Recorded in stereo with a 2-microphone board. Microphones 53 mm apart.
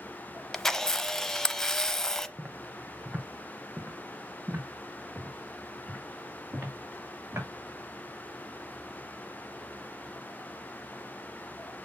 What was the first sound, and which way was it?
A camera shutter, 5° left (ahead or behind).